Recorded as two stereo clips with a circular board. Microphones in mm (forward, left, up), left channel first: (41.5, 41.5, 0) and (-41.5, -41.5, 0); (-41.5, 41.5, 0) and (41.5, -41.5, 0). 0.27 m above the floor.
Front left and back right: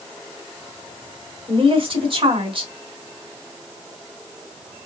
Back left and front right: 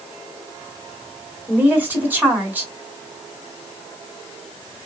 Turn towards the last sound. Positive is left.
turn(degrees=-115)